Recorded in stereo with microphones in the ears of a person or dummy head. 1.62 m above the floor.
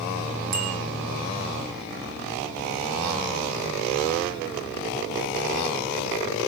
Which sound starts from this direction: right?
A bicycle bell, at 0.5 s.